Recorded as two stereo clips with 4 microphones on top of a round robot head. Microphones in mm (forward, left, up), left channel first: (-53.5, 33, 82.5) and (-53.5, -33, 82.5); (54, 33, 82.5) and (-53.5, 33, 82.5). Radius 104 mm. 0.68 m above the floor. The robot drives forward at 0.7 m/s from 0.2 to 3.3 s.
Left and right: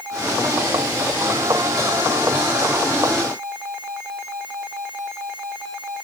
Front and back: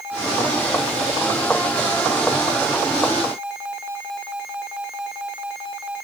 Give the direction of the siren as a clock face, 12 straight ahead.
I don't hear a siren.